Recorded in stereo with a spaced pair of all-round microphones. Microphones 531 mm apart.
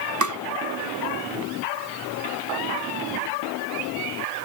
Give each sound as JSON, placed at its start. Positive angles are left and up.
{"t": 0.2, "sound": "tapping", "side_deg": -35}